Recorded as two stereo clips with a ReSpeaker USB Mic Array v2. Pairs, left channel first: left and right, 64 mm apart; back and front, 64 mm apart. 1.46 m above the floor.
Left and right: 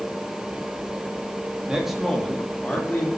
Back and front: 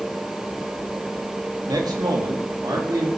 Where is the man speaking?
10° right, 2.5 m; by 3.1 s 30° left, 3.5 m.